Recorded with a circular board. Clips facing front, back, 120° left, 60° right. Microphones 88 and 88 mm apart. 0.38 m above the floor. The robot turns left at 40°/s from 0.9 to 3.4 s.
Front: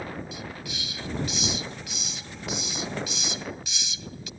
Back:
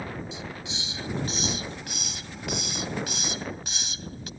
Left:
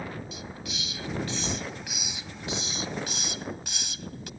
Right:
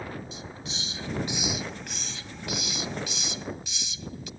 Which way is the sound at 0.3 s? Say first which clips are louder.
Even, left 1 dB; 115° right.